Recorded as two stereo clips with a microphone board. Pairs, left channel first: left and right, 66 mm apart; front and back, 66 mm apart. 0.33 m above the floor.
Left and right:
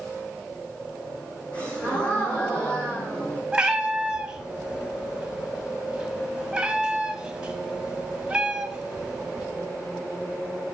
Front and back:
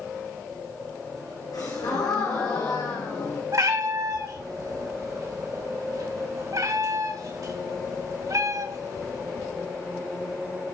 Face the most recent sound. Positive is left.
turn(degrees=-160)